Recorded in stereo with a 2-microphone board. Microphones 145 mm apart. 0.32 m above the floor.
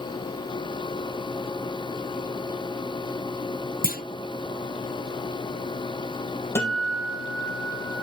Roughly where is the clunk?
Left.